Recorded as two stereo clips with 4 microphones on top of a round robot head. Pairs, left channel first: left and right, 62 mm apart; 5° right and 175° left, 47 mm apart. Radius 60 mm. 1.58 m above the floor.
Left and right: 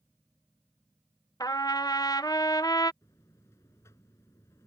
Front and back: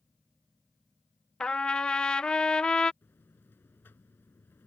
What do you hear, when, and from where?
1.4 s a trumpet: 55° left
3.0 s a buzzer: 35° left